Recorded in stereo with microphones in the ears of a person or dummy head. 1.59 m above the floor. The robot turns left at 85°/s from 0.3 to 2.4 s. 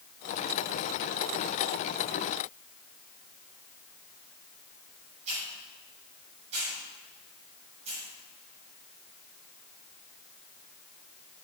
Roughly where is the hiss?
Right.